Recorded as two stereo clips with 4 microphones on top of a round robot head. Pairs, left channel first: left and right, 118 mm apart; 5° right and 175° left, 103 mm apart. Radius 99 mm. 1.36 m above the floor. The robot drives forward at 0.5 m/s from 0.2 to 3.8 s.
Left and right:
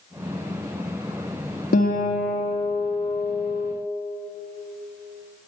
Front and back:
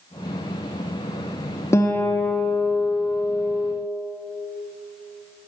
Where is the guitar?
60° left, 1.8 m; by 3.7 s 95° left, 1.6 m.